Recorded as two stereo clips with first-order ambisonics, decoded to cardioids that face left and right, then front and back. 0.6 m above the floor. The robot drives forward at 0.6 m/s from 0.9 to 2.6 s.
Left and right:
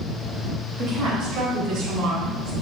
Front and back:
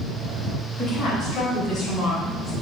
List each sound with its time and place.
0.8 s a woman speaking: 50° right, 3.5 m; by 2.5 s 65° right, 3 m